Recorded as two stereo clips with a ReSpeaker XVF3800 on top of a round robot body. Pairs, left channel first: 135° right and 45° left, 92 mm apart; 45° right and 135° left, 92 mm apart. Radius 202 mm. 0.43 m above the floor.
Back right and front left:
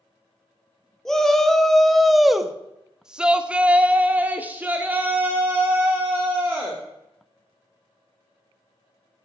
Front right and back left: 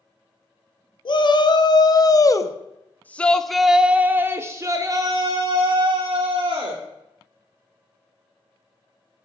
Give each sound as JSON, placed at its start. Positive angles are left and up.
{"t": 1.1, "sound": "a shout", "azimuth_deg": -50, "distance_m": 1.8}